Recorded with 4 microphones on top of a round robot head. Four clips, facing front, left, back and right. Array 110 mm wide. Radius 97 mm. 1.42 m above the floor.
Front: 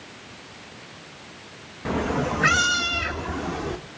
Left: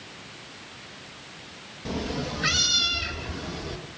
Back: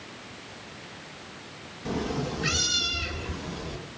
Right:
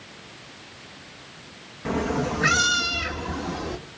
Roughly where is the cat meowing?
Ahead right.